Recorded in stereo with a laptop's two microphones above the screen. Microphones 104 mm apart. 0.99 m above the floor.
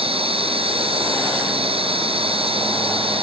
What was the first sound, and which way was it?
A machine running, 75° right (ahead or behind).